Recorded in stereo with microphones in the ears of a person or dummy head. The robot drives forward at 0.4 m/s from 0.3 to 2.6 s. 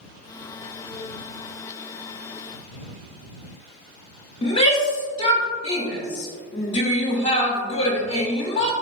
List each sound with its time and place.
4.4 s a shout: 25° left (ahead or behind), 0.6 m